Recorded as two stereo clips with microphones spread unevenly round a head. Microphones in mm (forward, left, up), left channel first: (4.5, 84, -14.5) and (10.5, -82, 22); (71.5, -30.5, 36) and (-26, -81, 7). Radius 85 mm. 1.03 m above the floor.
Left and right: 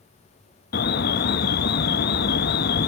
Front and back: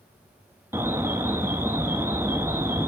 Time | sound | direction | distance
0.7 | an alarm | 130° left | 0.7 m